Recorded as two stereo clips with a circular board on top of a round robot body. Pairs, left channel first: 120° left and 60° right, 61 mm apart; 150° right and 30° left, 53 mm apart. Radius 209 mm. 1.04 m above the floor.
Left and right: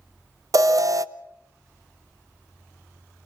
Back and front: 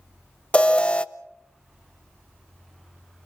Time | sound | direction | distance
0.5 | an alarm | 80° right | 1.0 m